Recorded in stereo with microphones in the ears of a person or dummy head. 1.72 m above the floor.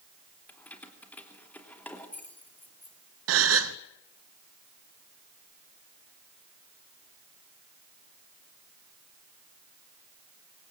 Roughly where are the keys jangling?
Centre.